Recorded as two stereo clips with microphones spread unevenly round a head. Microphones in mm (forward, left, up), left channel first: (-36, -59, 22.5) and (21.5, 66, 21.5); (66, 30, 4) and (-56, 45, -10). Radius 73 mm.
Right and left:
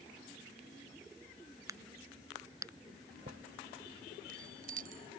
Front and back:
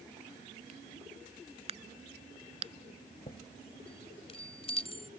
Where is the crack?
135° left.